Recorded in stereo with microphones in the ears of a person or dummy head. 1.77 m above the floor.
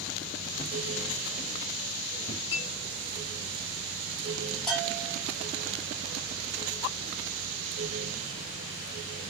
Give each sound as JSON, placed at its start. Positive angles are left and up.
{"t": 0.6, "sound": "footsteps", "side_deg": 10, "distance_m": 2.0}
{"t": 2.5, "sound": "a clink", "side_deg": 25, "distance_m": 0.7}
{"t": 4.7, "sound": "a bell", "side_deg": 0, "distance_m": 2.5}